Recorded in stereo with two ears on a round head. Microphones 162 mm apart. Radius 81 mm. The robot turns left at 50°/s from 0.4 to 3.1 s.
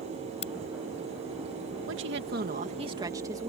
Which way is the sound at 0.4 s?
35° left (ahead or behind).